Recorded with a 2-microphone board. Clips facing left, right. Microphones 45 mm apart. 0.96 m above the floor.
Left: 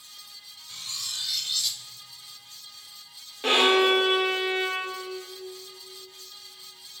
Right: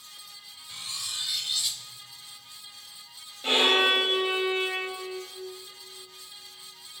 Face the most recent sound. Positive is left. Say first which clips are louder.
# left 2 dB
turn(degrees=70)  # may be behind; listen again after turning